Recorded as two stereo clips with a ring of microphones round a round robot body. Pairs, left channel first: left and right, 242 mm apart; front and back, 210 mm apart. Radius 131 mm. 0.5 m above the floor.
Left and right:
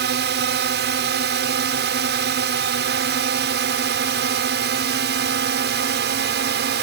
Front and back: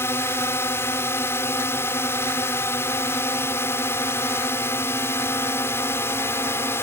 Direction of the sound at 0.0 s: 75° right.